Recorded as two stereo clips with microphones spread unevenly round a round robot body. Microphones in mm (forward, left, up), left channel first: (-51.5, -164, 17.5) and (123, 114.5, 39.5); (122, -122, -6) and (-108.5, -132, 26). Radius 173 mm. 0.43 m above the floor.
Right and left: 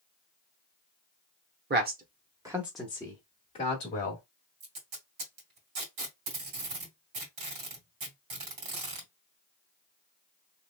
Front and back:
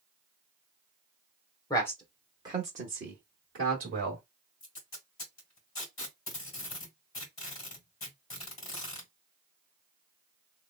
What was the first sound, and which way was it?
A man speaking, 40° left.